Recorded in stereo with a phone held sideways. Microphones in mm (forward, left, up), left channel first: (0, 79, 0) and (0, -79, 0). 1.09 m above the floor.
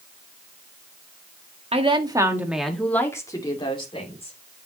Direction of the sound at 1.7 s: 40° right (ahead or behind).